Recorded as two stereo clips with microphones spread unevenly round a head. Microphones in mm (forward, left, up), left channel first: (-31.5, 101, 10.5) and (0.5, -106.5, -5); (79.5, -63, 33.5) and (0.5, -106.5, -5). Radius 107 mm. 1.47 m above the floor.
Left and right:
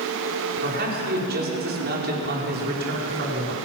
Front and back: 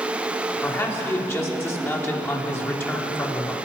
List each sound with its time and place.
0.6 s a man speaking: 35° right, 4.5 m